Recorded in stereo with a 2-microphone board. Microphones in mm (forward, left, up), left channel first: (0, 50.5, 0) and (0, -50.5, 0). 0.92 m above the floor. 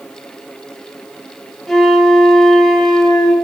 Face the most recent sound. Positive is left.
turn(degrees=5)  # may be behind; listen again after turning